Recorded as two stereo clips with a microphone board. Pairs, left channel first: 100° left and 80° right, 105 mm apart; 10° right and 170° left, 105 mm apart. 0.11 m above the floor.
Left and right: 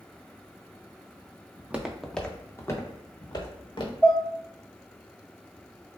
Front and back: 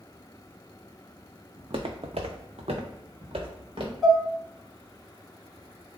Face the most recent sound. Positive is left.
turn(degrees=80)